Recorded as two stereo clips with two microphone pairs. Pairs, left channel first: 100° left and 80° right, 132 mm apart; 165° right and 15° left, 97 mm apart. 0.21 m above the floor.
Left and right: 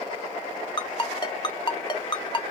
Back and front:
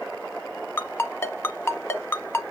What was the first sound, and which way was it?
A ringtone, 140° left.